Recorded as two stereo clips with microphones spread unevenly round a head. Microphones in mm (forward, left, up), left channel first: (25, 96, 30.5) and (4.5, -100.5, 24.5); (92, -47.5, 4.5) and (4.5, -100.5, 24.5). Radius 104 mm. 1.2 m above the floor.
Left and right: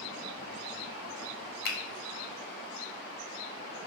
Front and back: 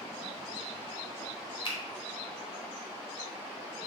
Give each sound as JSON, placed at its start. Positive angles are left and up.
{"t": 1.6, "sound": "a finger snap", "azimuth_deg": 55, "distance_m": 0.6}